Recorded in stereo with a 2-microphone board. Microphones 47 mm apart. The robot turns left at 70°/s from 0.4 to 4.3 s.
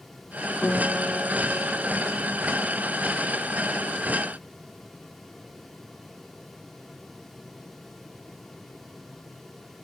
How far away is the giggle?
I don't hear a giggle.